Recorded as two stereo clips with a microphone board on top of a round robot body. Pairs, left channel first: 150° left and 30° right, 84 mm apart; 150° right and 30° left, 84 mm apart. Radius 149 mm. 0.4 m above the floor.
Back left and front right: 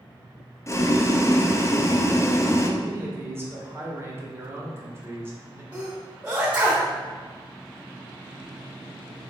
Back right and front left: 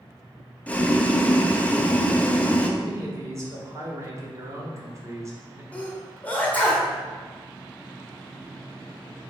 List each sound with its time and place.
0.7 s boiling: 150° left, 0.6 m
2.8 s a man speaking: 10° left, 1.1 m
5.7 s a sneeze: 90° right, 0.9 m